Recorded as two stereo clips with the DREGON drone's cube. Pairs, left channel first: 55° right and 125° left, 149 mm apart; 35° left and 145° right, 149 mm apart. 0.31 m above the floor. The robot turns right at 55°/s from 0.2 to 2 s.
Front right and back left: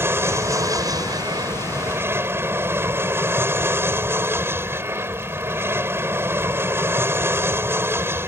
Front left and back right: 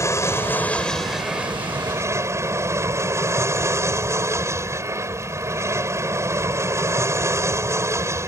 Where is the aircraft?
75° left; by 8.3 s 175° left.